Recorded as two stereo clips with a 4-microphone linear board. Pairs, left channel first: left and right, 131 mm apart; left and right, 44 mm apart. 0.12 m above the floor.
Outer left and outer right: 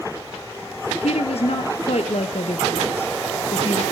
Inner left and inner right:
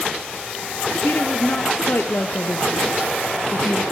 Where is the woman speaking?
55° left (ahead or behind), 2 m.